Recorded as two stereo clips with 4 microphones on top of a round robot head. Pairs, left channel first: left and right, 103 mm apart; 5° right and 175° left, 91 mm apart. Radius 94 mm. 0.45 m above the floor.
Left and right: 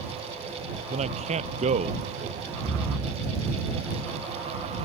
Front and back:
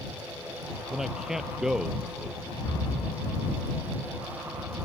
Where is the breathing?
65° right.